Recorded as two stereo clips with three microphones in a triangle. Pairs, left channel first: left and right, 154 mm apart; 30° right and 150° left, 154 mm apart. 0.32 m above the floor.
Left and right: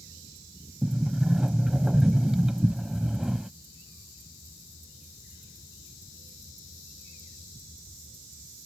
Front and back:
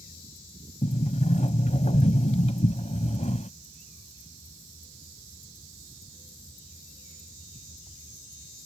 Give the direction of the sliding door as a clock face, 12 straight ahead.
12 o'clock.